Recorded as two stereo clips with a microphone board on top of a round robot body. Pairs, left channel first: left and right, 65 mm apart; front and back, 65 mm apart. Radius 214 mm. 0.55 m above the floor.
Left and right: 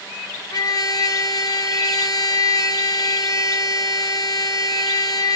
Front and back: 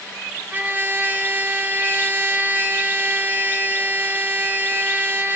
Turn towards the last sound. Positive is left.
turn(degrees=115)